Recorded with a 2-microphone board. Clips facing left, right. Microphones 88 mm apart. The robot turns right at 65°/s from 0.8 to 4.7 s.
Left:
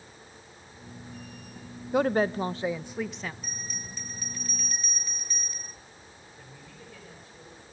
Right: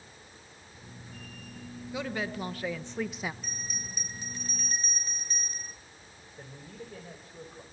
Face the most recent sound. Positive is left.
turn(degrees=-35)  # may be behind; listen again after turning